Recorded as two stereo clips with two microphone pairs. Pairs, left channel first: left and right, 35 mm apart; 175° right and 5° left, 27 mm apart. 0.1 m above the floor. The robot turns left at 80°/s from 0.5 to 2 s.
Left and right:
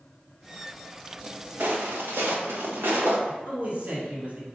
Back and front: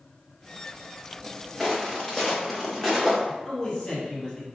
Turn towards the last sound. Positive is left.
turn(degrees=-120)